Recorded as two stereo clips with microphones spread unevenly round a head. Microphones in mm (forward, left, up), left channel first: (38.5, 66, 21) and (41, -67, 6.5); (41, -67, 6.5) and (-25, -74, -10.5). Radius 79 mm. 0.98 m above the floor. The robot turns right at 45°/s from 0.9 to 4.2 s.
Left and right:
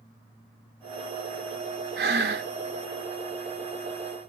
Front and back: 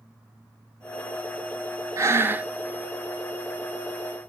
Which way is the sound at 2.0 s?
125° right.